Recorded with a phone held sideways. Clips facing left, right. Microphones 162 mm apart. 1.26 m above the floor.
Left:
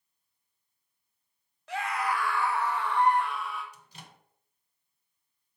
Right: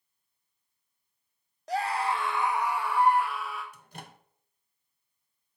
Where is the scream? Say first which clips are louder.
Right 2 dB; 40° right (ahead or behind), 0.7 m; by 3.6 s centre (ahead or behind), 1.5 m.